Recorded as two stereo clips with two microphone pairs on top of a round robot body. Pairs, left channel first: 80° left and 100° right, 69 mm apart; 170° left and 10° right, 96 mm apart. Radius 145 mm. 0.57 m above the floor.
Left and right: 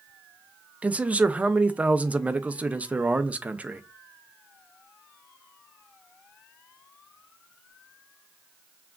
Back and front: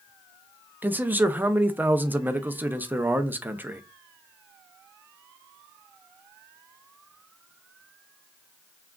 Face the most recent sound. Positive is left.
turn(degrees=-85)